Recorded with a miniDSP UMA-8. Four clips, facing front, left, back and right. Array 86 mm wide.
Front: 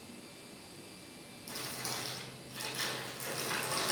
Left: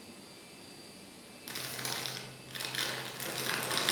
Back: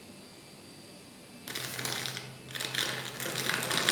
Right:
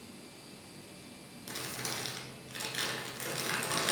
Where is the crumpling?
175° left, 1.1 m.